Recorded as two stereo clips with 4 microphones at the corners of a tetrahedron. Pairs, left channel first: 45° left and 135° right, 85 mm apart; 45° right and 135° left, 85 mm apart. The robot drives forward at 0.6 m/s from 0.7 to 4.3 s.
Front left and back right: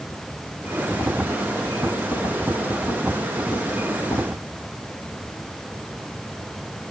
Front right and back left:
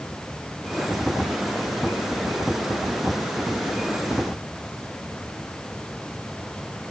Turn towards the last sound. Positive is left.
No sound to turn to.